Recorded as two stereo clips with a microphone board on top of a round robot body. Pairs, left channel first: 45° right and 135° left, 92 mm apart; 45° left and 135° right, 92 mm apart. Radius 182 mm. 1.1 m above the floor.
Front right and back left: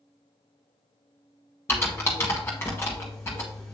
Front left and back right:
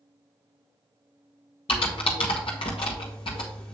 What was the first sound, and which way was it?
Typing on a keyboard, 20° left.